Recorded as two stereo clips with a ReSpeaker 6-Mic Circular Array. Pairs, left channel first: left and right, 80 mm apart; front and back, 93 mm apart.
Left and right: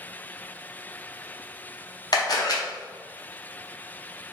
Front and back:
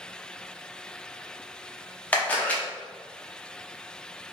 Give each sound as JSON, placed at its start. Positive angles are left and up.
{"t": 2.1, "sound": "a camera shutter", "azimuth_deg": 70, "distance_m": 0.9}